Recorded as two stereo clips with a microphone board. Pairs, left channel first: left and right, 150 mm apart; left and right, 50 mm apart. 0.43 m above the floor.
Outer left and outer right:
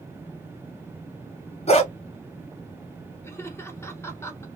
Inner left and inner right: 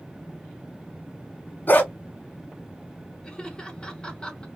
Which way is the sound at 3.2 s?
15° left (ahead or behind).